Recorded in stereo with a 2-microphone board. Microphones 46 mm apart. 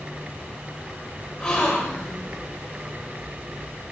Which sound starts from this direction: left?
A gasp, at 1.4 s.